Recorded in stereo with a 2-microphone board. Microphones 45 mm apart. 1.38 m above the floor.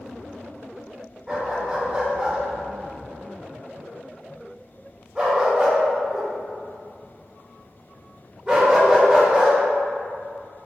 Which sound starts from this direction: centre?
A dog barking, at 1.3 s.